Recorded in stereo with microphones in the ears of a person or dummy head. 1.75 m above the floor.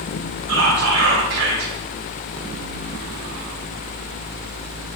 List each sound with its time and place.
0.5 s whispering: 80° right, 0.5 m